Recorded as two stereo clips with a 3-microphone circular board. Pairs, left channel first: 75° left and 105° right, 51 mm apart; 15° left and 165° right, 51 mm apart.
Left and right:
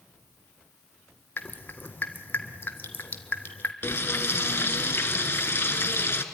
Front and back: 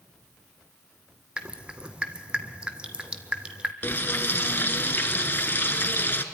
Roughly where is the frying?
Ahead left.